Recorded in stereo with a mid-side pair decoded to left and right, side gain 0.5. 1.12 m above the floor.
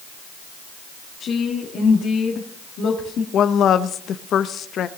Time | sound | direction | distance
1.2 | a woman speaking | 60° left | 1.9 m
3.3 | a woman speaking | 55° left | 0.8 m